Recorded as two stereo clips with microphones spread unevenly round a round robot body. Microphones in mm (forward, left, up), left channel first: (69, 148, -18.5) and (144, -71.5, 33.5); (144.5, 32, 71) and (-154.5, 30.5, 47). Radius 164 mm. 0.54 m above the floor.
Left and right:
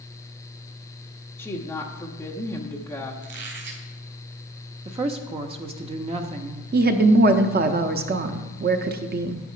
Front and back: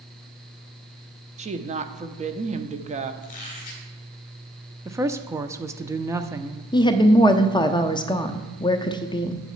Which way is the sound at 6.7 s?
70° right.